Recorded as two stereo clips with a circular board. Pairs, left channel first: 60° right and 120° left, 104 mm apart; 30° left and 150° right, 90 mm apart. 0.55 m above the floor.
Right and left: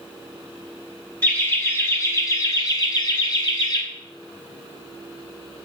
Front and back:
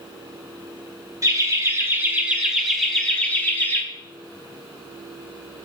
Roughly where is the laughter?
Behind right.